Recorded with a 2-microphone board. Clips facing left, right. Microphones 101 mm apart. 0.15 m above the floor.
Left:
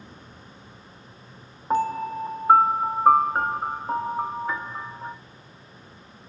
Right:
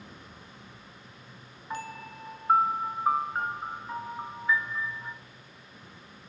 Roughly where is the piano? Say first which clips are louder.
Left 14 dB; left.